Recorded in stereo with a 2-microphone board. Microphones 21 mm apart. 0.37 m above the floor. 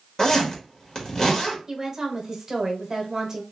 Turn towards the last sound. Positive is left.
turn(degrees=-30)  # may be behind; listen again after turning